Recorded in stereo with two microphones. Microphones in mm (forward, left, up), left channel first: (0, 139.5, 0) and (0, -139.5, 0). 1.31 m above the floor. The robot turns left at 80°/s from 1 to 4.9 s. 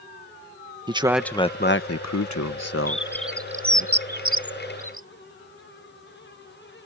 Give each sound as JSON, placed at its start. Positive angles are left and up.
{"t": 0.9, "sound": "a man speaking", "side_deg": -15}
{"t": 2.9, "sound": "a bird", "side_deg": 30}